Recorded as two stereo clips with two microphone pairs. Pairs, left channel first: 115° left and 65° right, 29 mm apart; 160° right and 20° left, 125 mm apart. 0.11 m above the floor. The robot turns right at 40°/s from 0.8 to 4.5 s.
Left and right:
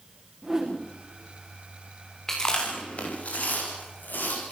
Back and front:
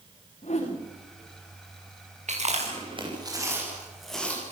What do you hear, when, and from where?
0.4 s a whoosh: 125° right, 5 m
2.3 s chewing: 40° left, 7.5 m; by 4.5 s 125° left, 7.5 m